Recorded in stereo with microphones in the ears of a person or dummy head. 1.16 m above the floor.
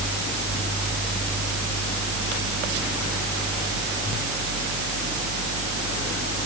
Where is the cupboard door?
No cupboard door in this recording.